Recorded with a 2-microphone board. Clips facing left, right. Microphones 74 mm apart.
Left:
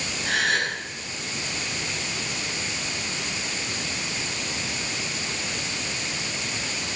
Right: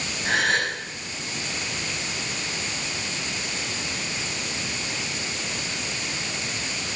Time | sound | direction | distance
0.2 | a gasp | 25° right (ahead or behind) | 6 m